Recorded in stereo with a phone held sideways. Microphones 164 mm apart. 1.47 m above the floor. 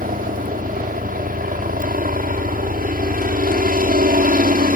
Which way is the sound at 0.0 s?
60° right (ahead or behind).